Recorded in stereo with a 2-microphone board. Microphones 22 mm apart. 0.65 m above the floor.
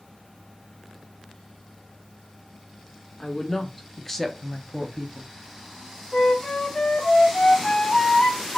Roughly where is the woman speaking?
Left.